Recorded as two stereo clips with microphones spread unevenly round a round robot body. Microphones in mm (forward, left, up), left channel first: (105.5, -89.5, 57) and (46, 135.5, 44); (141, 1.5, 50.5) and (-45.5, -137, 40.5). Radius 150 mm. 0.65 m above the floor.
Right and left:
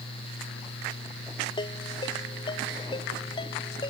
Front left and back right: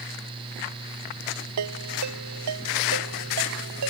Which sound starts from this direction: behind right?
A ringtone, at 1.6 s.